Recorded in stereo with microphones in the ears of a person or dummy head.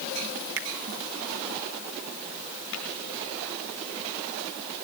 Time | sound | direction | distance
0.6 | a finger snap | 50° right (ahead or behind) | 0.8 m
2.7 | tapping | 85° left | 5 m